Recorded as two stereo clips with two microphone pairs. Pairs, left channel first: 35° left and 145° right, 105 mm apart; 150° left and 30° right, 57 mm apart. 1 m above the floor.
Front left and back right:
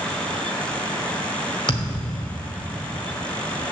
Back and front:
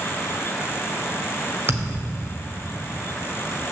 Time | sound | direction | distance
1.7 | a thud | straight ahead | 1.5 m